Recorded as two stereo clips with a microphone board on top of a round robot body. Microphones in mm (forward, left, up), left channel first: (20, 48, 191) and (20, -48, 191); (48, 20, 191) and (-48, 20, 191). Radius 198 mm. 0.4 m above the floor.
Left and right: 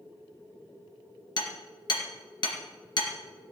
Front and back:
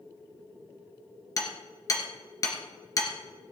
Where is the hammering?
50° left, 2.5 m.